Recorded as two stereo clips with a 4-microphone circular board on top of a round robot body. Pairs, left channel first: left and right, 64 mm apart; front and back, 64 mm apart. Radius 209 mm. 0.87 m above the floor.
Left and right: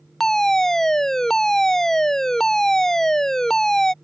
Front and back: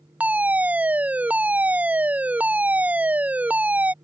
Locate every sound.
0.2 s a fire alarm: 160° left